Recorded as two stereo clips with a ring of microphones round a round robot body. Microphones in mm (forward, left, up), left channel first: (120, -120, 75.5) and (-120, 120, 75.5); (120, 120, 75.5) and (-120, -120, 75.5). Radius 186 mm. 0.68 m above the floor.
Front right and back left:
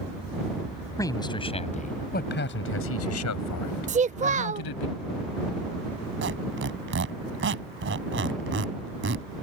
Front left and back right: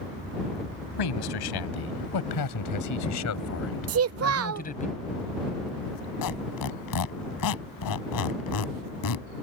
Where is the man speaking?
35° left; by 4.9 s 25° right.